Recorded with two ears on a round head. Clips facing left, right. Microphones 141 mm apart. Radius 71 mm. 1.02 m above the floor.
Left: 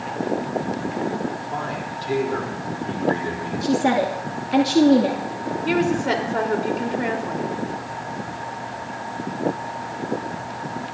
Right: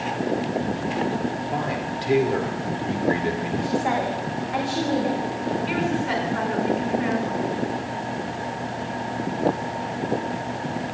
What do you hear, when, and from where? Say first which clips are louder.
1.5 s a man speaking: right 2 dB; 20° right (ahead or behind), 3.5 m
3.6 s a woman speaking: left 6 dB; 75° left (ahead or behind), 2.5 m
5.7 s a woman speaking: left 8 dB; 60° left (ahead or behind), 3.5 m